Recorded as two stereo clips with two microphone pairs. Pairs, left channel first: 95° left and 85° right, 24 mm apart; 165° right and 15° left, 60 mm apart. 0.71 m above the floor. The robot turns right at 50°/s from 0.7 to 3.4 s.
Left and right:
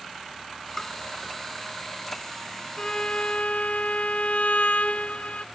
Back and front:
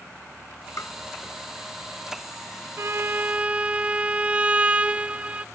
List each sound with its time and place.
0.8 s tapping: 165° left; by 0.9 s 175° left
2.8 s a violin: 50° left; by 5.5 s 80° left